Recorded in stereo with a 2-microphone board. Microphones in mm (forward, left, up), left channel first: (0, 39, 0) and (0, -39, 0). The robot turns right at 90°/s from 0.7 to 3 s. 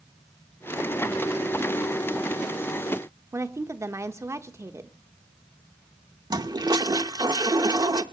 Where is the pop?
I don't hear a pop.